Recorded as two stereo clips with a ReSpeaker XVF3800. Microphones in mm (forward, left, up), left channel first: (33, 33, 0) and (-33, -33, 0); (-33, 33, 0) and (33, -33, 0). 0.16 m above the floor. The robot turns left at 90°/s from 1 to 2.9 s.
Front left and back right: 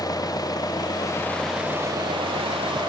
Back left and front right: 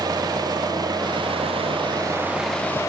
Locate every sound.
0.0 s an engine running: straight ahead; by 2.9 s 170° right